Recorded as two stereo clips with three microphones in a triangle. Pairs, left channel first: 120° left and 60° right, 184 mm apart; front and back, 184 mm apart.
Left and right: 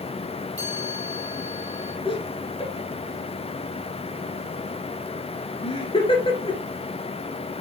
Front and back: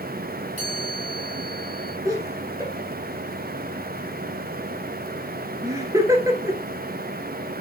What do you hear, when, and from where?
0.6 s a chime: 135° right, 6 m
2.0 s laughter: 130° left, 1.4 m